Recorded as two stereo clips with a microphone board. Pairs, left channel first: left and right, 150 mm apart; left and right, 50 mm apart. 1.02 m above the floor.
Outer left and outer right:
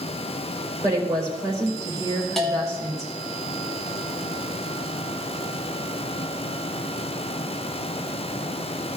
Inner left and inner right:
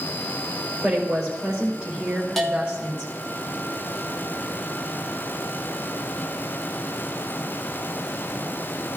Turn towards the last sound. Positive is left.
turn(degrees=0)  # may be behind; listen again after turning